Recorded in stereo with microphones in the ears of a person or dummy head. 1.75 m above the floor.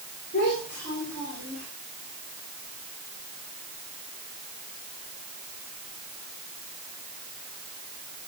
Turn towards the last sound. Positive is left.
turn(degrees=45)  # may be behind; listen again after turning